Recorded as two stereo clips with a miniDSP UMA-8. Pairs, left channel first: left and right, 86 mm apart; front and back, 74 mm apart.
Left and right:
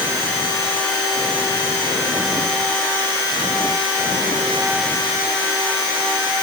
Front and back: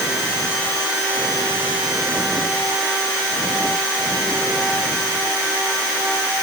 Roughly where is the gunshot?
No gunshot in this recording.